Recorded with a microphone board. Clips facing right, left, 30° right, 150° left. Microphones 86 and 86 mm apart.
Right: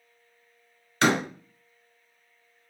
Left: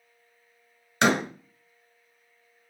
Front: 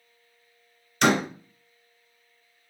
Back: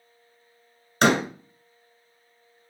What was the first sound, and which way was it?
A door slam, 155° left.